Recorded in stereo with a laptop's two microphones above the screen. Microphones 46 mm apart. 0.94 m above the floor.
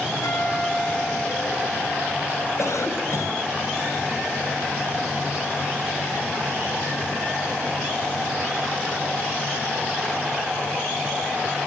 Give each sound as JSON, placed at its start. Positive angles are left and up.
{"t": 0.2, "sound": "a guitar", "side_deg": 80, "distance_m": 8.5}
{"t": 2.6, "sound": "a cough", "side_deg": 80, "distance_m": 5.5}